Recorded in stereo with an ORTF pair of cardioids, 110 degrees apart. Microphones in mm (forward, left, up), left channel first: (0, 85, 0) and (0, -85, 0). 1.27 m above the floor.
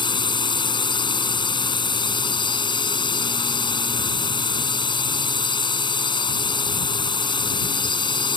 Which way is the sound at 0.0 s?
25° left.